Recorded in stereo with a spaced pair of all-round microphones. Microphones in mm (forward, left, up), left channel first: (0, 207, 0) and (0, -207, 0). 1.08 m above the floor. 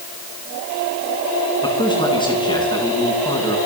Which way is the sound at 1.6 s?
10° left (ahead or behind).